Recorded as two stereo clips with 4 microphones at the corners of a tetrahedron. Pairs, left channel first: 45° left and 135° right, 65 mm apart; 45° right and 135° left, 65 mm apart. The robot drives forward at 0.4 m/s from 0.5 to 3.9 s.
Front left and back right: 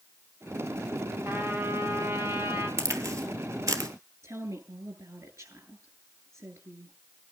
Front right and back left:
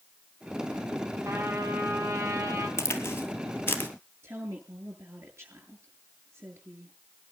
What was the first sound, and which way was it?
A trumpet, straight behind.